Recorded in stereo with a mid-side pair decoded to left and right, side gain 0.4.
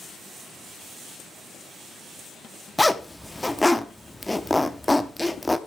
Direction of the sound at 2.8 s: 10° left.